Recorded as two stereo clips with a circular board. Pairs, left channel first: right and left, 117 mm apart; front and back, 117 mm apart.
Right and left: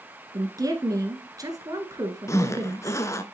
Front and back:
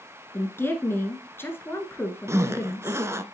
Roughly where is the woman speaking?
Ahead left.